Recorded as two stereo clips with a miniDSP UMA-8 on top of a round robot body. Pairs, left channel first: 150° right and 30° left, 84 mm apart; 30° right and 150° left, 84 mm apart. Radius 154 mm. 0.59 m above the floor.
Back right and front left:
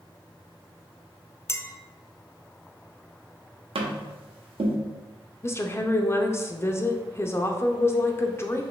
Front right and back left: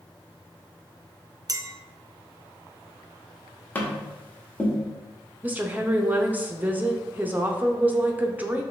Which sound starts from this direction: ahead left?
Tapping, at 3.8 s.